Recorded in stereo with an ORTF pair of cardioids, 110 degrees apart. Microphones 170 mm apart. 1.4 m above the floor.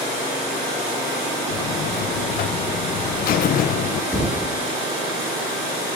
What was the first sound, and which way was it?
A buzzer, 60° left.